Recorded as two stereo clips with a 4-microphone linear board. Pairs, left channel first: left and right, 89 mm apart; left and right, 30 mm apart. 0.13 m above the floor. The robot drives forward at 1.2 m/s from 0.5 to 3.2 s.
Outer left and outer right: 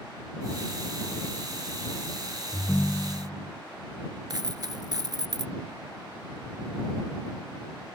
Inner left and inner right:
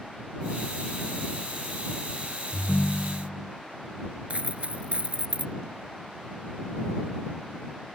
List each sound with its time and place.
2.5 s a ringtone: 20° left (ahead or behind)
4.3 s a dropped coin: 50° right (ahead or behind)